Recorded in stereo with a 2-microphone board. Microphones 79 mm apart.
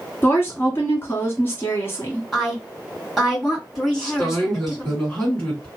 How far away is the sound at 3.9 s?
About 2.5 m.